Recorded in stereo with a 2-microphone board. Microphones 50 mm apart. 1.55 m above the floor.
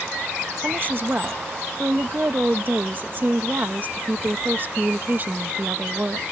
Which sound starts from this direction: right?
A woman speaking, at 0.6 s.